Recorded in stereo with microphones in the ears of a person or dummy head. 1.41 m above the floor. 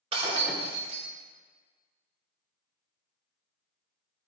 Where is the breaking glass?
40° right (ahead or behind), 2.5 m.